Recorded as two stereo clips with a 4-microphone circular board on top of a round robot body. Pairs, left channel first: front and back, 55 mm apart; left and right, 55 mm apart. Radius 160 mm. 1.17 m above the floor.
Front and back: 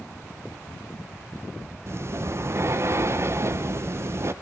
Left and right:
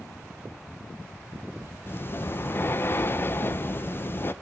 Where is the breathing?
140° left, 0.9 m.